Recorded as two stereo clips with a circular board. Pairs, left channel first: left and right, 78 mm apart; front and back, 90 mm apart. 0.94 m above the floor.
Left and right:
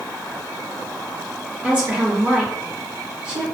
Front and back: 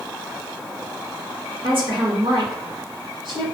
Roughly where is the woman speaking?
Behind.